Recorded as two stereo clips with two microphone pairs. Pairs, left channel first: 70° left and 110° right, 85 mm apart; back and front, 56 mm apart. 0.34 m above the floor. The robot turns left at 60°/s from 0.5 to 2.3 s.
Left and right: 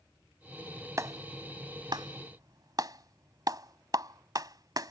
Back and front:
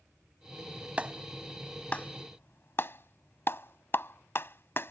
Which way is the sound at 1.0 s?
60° right.